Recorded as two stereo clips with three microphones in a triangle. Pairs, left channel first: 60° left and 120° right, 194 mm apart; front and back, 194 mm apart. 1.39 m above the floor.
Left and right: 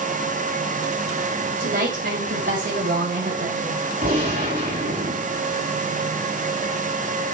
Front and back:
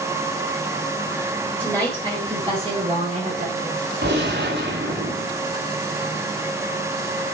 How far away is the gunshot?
About 6.5 m.